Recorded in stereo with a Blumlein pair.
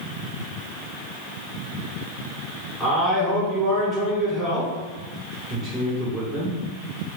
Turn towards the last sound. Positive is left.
turn(degrees=5)